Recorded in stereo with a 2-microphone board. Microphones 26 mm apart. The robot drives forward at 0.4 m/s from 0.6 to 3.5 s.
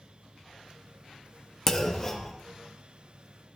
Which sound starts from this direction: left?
A clunk, at 1.7 s.